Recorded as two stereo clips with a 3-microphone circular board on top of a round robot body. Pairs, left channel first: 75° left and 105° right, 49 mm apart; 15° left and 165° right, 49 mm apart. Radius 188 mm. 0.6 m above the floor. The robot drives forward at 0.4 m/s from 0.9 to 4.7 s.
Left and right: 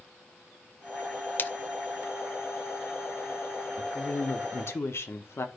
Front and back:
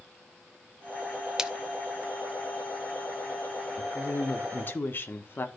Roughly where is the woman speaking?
Ahead left.